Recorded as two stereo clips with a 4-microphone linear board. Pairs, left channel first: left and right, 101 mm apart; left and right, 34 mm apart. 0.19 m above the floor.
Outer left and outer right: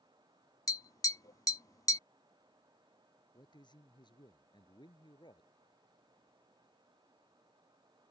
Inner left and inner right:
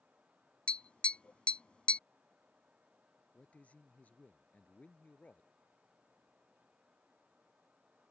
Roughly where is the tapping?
Left.